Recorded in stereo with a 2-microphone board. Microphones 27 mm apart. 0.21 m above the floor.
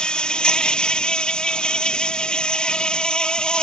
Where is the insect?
35° left (ahead or behind).